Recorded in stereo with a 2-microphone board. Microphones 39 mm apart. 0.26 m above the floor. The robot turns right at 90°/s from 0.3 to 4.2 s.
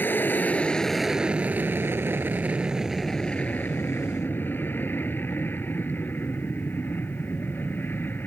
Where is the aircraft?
115° left; by 8.3 s 110° left.